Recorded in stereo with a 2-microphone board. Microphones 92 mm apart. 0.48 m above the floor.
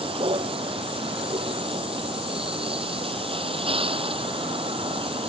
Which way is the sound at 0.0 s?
80° right.